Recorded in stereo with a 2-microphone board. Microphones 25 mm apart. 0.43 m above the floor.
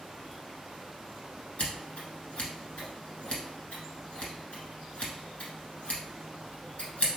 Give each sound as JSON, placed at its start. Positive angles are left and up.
{"t": 1.6, "sound": "scissors", "side_deg": 55, "distance_m": 1.1}